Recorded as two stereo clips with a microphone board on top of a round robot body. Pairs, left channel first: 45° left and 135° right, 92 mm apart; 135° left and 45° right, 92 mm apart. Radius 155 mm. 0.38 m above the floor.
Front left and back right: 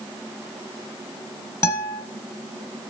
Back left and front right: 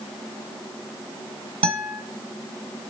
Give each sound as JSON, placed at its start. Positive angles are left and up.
{"t": 1.6, "sound": "a guitar", "azimuth_deg": -15, "distance_m": 1.8}